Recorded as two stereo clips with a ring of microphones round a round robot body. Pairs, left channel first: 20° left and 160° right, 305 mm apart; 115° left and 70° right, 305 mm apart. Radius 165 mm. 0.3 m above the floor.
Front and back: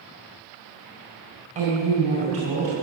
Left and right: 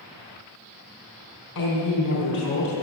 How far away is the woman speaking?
About 3.5 m.